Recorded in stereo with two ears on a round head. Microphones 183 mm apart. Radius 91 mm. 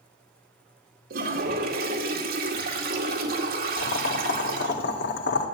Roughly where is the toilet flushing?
Right.